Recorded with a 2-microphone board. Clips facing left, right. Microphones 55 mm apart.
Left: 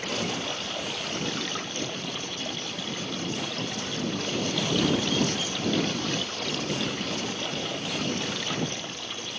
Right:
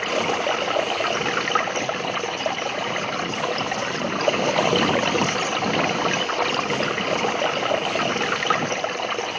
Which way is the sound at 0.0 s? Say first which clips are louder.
Right 8 dB; 55° right (ahead or behind).